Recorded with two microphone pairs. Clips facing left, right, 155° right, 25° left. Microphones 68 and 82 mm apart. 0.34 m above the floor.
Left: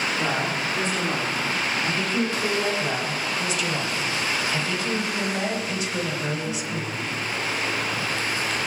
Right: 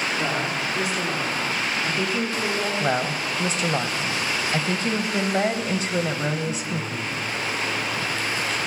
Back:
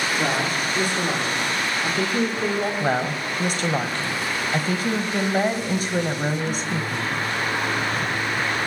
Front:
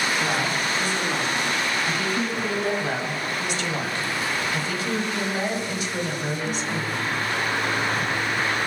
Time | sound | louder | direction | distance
0.2 | a woman speaking | even, back 1 dB | 165° right | 6 m
2.8 | a woman speaking | right 3 dB, back 4 dB | 125° right | 1.4 m